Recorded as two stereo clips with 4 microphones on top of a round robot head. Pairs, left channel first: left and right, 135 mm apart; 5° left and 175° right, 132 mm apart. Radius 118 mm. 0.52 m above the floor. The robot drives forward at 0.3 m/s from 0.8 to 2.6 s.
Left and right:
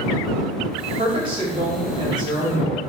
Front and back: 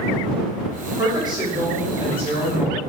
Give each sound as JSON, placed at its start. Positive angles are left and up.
{"t": 1.0, "sound": "a woman speaking", "azimuth_deg": -120, "distance_m": 1.1}